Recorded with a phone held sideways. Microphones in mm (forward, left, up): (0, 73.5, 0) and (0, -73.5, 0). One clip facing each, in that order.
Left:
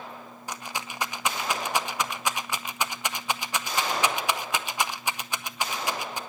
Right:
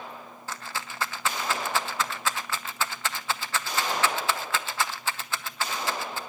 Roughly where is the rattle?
Centre.